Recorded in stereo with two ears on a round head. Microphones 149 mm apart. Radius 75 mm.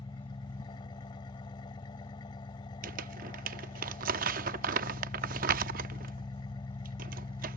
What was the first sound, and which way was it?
An engine running, 25° left (ahead or behind).